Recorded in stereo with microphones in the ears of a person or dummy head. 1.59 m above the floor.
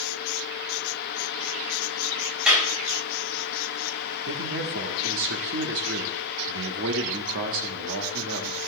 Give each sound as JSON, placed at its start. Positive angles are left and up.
{"t": 2.5, "sound": "a clap", "side_deg": 0, "distance_m": 3.5}
{"t": 4.3, "sound": "a man speaking", "side_deg": -65, "distance_m": 1.2}